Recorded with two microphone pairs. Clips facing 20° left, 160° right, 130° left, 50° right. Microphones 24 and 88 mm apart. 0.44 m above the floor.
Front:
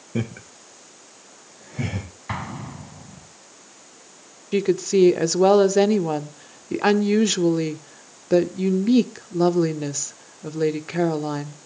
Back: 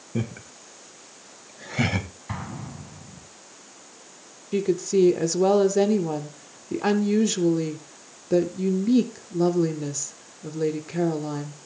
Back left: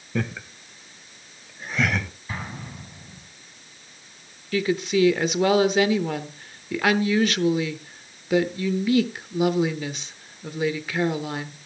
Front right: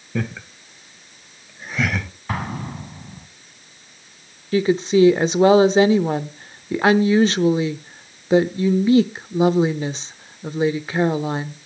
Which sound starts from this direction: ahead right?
An explosion, at 2.3 s.